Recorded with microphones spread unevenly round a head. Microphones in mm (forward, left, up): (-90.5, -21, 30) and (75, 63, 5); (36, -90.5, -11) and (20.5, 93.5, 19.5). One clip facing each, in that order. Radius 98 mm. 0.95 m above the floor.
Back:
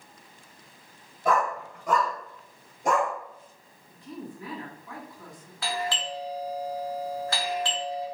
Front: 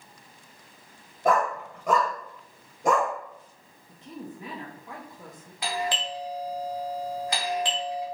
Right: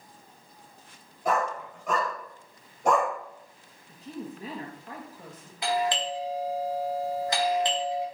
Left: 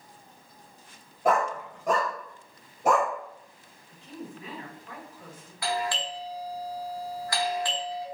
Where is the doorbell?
35° right, 1.0 m.